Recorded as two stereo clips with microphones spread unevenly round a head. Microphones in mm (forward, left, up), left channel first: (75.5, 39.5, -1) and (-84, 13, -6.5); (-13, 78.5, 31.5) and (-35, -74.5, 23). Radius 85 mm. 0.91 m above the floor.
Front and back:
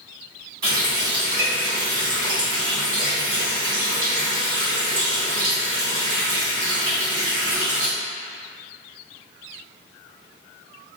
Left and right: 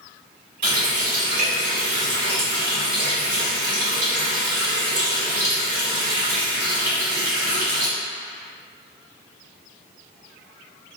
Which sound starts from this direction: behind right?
A running tap, at 0.6 s.